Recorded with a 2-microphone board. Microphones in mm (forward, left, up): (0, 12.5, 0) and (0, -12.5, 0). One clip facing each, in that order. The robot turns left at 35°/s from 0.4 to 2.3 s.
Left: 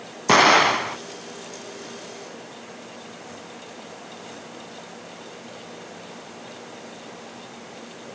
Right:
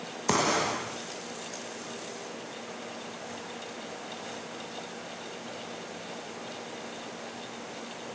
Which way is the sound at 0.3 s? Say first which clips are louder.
Left 12 dB; 70° left (ahead or behind).